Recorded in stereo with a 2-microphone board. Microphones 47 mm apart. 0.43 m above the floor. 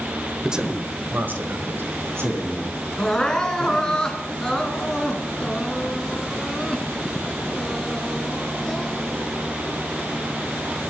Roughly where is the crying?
Centre.